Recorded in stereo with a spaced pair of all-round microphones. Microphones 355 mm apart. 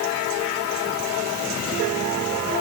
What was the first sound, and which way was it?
Only background noise.